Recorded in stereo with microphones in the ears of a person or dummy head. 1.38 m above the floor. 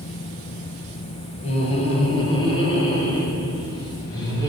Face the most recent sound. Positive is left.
turn(degrees=20)  # may be behind; listen again after turning